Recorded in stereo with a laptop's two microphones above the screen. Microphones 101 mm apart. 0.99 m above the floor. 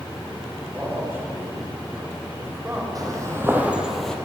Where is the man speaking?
25° right (ahead or behind), 4 m.